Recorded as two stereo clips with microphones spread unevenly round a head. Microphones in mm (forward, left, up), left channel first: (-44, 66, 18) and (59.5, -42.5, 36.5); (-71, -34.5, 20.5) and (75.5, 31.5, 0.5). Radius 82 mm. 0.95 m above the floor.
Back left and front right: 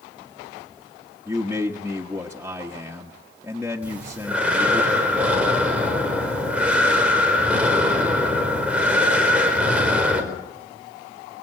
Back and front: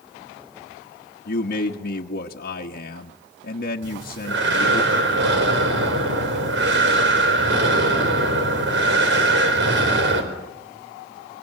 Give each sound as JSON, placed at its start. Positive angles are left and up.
{"t": 1.2, "sound": "a man speaking", "azimuth_deg": -125, "distance_m": 1.3}
{"t": 3.8, "sound": "breathing", "azimuth_deg": 35, "distance_m": 4.5}